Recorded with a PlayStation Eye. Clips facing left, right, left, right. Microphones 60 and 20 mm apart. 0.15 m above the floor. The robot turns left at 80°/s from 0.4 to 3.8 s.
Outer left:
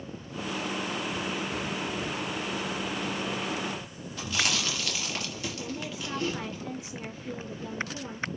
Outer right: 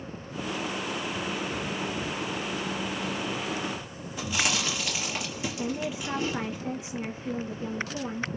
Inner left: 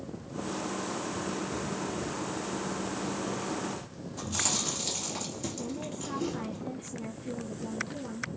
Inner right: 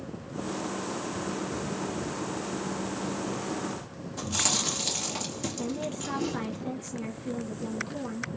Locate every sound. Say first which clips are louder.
4.2 s chewing: outer right 1 dB, inner right 3 dB; 20° right (ahead or behind), 3.5 m
5.6 s a woman speaking: outer right 5 dB, inner right 4 dB; 25° right (ahead or behind), 2.5 m